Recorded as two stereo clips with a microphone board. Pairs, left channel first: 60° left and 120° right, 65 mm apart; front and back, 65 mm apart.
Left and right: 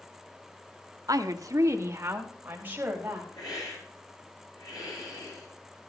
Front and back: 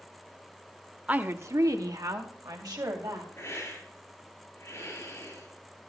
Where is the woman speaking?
115° right, 1.0 m; by 3.3 s 175° left, 3.5 m.